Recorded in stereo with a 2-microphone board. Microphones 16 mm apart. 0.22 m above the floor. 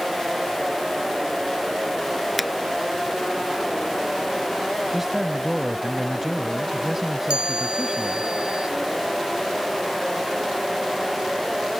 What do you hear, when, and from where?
2.4 s a finger snap: centre (ahead or behind)
4.9 s a man speaking: 20° right (ahead or behind)
7.3 s a chime: 80° right